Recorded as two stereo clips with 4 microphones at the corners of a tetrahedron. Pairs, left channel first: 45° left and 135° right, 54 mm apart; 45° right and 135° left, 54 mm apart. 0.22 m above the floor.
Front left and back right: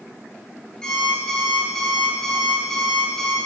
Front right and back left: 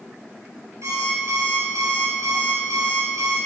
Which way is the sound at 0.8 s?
120° left.